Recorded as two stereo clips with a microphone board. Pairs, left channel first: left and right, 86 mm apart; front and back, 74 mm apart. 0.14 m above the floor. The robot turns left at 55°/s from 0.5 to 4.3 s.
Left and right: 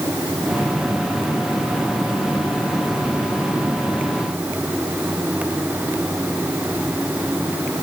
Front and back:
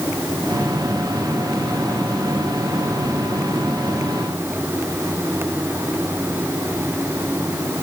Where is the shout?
No shout in this recording.